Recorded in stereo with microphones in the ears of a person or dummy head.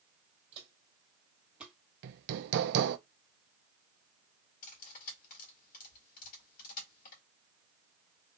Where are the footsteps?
30° right (ahead or behind), 2 m; by 1.8 s centre (ahead or behind), 1.6 m.